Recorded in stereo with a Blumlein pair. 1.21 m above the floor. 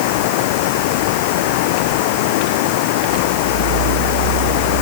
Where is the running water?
50° left.